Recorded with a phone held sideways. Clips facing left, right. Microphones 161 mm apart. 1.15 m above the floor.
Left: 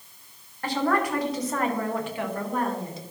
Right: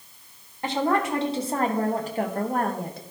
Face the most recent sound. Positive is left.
turn(degrees=-65)  # may be behind; listen again after turning